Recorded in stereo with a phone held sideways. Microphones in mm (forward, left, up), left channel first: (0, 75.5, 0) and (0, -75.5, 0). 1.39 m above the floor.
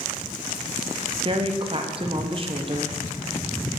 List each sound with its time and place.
1.2 s a woman speaking: 40° right (ahead or behind), 0.6 m